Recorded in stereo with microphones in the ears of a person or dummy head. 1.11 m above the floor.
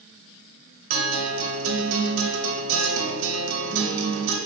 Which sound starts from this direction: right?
A guitar, at 0.9 s.